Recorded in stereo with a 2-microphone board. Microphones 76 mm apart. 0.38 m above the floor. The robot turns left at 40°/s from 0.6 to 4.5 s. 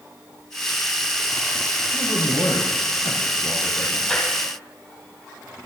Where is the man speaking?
110° left, 6 m; by 4.0 s 30° left, 6 m.